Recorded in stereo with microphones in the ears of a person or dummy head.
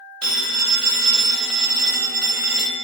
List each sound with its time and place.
0.2 s a phone ringing: 10° left (ahead or behind), 0.7 m